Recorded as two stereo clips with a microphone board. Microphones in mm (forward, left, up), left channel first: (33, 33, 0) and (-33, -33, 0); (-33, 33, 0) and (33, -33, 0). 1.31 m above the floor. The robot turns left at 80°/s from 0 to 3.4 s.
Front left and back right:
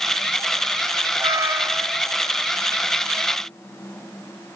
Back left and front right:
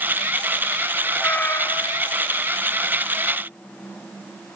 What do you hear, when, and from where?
1.2 s a cat meowing: 160° right, 1.3 m; by 2.2 s 120° left, 1.3 m